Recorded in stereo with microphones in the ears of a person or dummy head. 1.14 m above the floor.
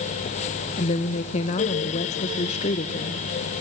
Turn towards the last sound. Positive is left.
turn(degrees=40)  # may be behind; listen again after turning